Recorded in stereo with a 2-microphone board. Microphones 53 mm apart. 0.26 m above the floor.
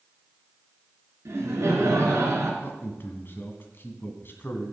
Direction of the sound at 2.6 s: 45° left (ahead or behind).